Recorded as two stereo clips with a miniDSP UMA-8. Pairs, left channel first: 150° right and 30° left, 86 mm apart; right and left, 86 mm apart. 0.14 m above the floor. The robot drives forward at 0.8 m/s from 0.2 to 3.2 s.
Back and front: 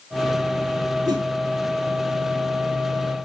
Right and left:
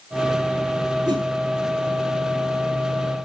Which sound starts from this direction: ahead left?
A whoosh, at 1.1 s.